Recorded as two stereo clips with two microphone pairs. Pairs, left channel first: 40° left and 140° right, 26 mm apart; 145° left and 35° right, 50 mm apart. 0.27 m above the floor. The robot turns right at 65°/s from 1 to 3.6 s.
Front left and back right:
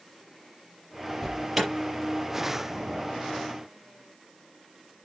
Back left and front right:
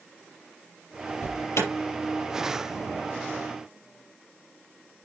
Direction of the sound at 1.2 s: 115° left.